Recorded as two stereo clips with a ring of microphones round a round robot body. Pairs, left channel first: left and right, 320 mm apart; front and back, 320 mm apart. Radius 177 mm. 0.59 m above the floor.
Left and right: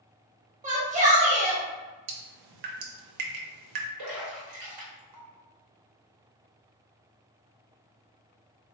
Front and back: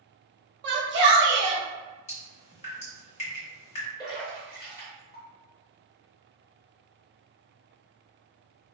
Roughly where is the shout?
Behind right.